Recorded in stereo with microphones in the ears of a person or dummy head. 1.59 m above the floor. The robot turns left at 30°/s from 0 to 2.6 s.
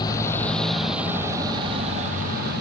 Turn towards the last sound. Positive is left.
turn(degrees=-65)  # may be behind; listen again after turning